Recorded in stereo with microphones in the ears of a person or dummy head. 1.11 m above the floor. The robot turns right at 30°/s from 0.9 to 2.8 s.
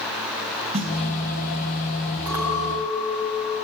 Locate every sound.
0.7 s a snare drum: 35° right (ahead or behind), 2.5 m
2.3 s a clink: 10° right (ahead or behind), 6 m; by 3.5 s 25° right (ahead or behind), 6 m